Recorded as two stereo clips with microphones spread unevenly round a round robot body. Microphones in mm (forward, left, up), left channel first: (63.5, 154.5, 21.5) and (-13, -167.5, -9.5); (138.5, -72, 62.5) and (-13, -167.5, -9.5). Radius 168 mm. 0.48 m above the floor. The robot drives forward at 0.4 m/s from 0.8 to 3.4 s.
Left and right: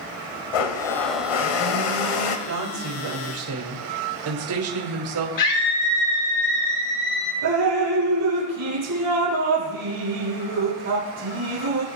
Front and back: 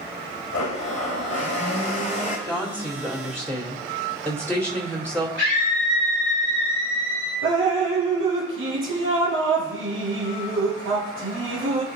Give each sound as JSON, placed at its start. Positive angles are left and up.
{"t": 0.5, "sound": "a blender", "azimuth_deg": 80, "distance_m": 1.5}
{"t": 2.5, "sound": "a woman speaking", "azimuth_deg": -70, "distance_m": 2.0}
{"t": 5.4, "sound": "a scream", "azimuth_deg": 115, "distance_m": 7.5}
{"t": 7.4, "sound": "dripping", "azimuth_deg": -150, "distance_m": 4.0}